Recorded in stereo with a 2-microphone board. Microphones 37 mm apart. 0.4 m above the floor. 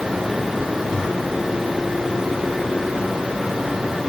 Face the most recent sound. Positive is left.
No sound to turn to.